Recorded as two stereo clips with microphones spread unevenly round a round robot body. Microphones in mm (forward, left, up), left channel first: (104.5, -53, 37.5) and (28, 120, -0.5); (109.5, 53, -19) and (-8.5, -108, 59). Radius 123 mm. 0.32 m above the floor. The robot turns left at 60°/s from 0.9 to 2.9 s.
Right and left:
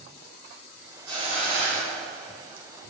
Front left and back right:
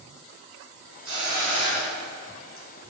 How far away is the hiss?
About 0.9 m.